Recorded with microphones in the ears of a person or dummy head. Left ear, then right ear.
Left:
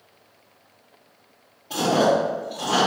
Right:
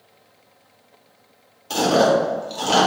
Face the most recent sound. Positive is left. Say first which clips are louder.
# right 3 dB
turn(degrees=-35)  # may be behind; listen again after turning